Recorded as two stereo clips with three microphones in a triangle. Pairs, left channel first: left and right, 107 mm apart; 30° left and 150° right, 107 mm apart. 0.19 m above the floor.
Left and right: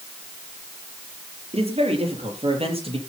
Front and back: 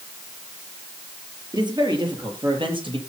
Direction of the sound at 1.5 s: 105° right.